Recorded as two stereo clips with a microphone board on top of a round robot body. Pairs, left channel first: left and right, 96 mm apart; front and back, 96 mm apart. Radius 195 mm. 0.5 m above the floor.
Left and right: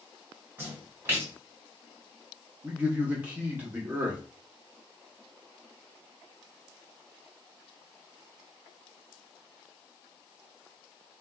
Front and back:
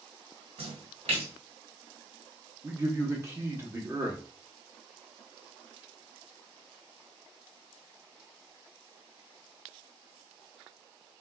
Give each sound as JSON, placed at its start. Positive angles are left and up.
{"t": 0.6, "sound": "a splash", "azimuth_deg": -160, "distance_m": 1.0}
{"t": 2.6, "sound": "a man speaking", "azimuth_deg": -150, "distance_m": 1.2}